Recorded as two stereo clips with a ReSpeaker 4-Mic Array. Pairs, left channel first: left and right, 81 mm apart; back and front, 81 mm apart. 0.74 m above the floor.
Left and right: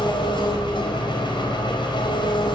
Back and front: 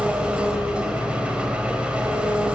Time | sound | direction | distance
0.0 | an engine running | 75° left | 4 m